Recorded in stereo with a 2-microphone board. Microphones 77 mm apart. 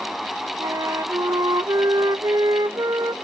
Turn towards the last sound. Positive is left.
turn(degrees=-60)  # may be behind; listen again after turning